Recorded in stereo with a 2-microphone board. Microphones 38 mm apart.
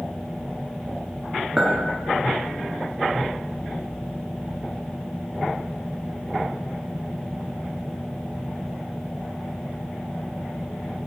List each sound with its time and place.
1.6 s a clink: 20° right (ahead or behind), 0.8 m